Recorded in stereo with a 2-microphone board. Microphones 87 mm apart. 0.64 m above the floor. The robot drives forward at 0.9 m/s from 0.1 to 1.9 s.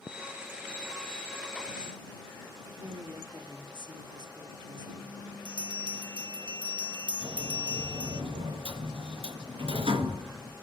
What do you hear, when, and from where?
2.8 s a woman speaking: 55° right (ahead or behind), 1.7 m
5.5 s a bell: 60° right (ahead or behind), 1.2 m
7.2 s a sliding door: 85° right, 3.5 m